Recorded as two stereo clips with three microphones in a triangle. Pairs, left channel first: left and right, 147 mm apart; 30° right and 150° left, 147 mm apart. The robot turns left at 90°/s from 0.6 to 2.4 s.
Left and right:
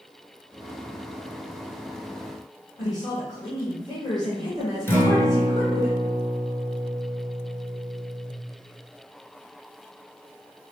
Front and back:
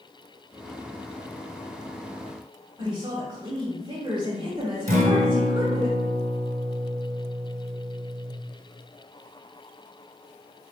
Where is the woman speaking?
130° left, 1.1 m.